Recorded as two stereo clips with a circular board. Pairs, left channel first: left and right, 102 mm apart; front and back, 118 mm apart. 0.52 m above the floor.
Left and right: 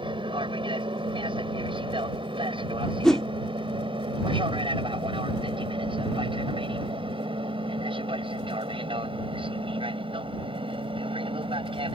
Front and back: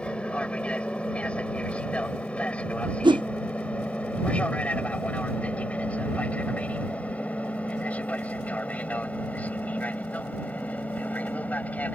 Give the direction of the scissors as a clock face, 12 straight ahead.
No scissors in this recording.